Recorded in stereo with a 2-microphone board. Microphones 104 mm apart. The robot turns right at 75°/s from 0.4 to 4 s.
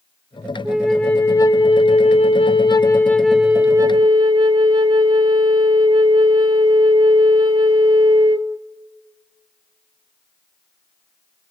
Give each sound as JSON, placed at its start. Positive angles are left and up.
{"t": 0.7, "sound": "a flute", "azimuth_deg": -20, "distance_m": 0.6}